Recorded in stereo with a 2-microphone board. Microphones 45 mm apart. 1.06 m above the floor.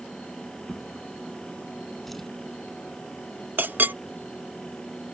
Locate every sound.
0.7 s a drawer: 5° left (ahead or behind)
3.6 s a clink: 45° right (ahead or behind)